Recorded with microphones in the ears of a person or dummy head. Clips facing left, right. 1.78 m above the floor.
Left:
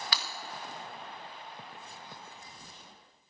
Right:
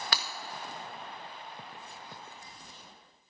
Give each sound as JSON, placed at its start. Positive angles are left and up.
{"t": 0.1, "sound": "breaking glass", "side_deg": -45, "distance_m": 1.6}